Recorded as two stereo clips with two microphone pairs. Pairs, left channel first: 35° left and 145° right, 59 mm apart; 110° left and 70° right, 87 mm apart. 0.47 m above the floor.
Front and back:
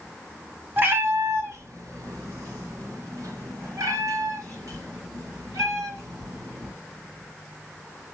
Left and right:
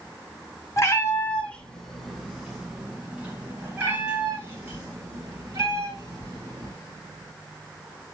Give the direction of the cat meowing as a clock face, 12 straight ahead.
7 o'clock.